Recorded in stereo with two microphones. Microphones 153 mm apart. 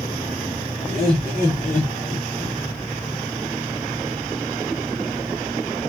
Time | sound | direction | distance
0.9 | laughter | 40° left (ahead or behind) | 2.5 m